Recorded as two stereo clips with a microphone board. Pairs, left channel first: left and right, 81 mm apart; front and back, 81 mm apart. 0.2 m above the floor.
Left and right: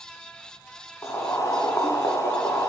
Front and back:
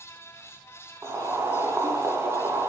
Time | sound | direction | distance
1.0 | boiling | 135° left | 1.8 m